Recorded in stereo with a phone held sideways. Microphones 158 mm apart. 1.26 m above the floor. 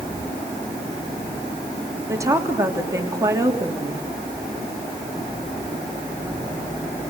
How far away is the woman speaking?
About 3 m.